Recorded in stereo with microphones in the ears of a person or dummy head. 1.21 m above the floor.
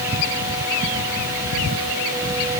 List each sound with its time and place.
Only background noise.